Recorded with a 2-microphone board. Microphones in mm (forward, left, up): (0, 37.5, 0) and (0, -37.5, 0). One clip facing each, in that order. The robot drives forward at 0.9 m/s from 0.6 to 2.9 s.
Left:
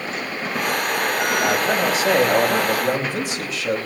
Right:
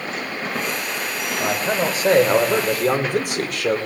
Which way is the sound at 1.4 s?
35° right (ahead or behind).